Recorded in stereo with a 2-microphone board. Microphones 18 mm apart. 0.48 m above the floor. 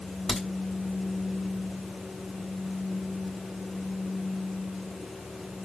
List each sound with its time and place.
0.3 s a crack: 30° left (ahead or behind), 1.5 m